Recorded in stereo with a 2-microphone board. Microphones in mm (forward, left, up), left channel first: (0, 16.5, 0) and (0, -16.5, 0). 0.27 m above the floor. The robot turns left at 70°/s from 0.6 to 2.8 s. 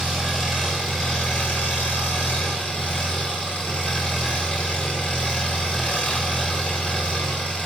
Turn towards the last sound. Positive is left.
turn(degrees=40)